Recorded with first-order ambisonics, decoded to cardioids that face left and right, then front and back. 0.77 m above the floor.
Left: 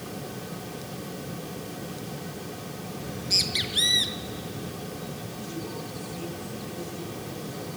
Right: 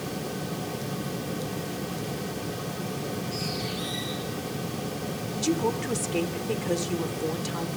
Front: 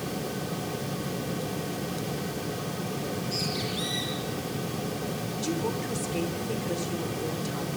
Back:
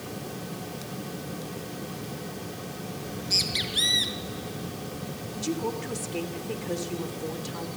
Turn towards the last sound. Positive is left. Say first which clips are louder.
# right 13 dB, back 1 dB
turn(degrees=-95)